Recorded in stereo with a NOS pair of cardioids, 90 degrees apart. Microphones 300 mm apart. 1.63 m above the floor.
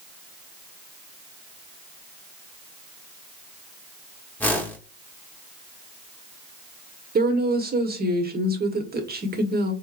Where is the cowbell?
No cowbell in this recording.